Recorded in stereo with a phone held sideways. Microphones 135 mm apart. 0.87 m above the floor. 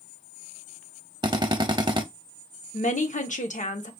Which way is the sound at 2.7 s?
65° left (ahead or behind).